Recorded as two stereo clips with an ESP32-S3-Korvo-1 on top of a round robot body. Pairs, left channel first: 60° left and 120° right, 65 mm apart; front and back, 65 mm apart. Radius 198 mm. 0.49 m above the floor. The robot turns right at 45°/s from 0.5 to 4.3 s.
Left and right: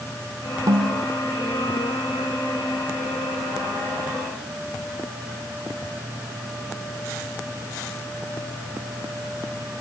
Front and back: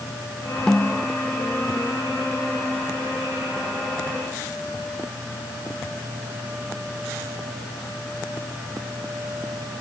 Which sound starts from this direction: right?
A snare drum, at 0.7 s.